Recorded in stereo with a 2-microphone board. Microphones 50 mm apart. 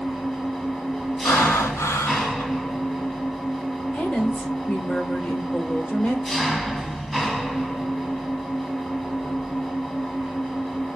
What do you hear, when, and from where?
0.0 s an engine running: 10° left (ahead or behind), 1.1 m
1.2 s breathing: 80° left, 0.9 m
3.9 s a woman speaking: 25° left (ahead or behind), 1.6 m